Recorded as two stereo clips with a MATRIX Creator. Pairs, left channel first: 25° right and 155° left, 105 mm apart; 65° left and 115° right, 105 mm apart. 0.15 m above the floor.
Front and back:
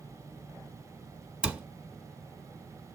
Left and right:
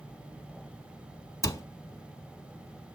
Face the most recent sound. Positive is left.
turn(degrees=85)